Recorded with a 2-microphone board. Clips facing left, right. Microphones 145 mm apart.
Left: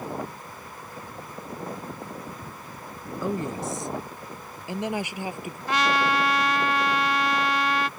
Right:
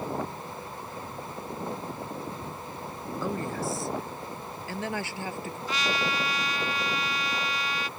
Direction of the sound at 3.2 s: 20° left (ahead or behind).